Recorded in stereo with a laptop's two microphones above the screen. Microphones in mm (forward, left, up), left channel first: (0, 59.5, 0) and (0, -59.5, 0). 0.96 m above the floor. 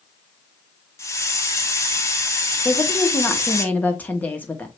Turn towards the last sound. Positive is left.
turn(degrees=15)  # may be behind; listen again after turning